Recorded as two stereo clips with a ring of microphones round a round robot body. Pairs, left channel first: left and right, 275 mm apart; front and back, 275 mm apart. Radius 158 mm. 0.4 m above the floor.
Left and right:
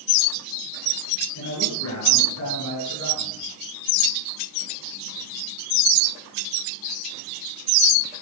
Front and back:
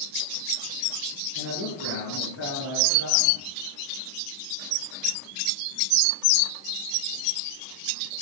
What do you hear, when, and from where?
1.4 s a man speaking: 50° left, 8.5 m